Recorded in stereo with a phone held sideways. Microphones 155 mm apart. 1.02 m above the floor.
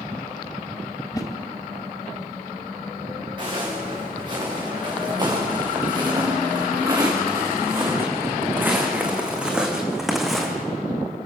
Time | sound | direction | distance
1.1 | a whoosh | 25° left (ahead or behind) | 1.9 m
3.4 | footsteps | 35° right (ahead or behind) | 7.5 m